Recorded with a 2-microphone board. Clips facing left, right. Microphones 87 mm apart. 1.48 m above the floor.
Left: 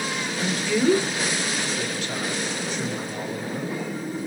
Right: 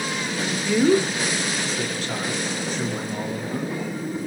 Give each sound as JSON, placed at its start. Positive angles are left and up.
{"t": 0.4, "sound": "a man speaking", "side_deg": -10, "distance_m": 1.1}